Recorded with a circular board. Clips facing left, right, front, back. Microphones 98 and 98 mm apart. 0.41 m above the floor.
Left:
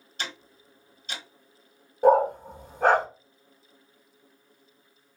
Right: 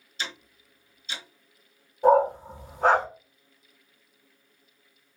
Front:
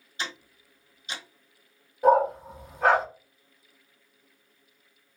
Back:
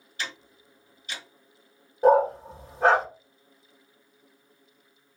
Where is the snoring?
I don't hear snoring.